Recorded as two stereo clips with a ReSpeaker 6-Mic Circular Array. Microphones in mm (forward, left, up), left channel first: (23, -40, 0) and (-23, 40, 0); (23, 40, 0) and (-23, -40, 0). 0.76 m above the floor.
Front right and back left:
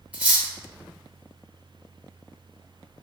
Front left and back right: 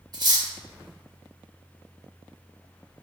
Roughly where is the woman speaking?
I don't hear a woman speaking.